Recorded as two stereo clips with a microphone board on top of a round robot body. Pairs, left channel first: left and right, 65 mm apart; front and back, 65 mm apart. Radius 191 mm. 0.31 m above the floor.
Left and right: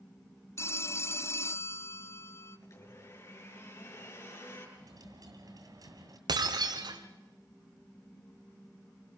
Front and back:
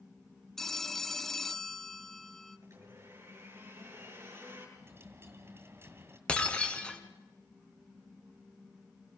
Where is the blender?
135° left, 8.5 m.